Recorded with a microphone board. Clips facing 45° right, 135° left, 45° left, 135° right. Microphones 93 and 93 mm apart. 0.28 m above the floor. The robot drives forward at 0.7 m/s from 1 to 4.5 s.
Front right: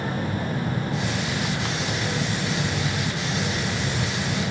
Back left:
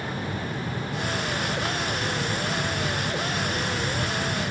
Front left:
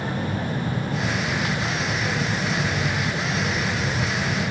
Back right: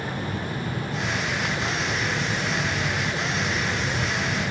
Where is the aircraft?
5° right; by 4.5 s 10° right.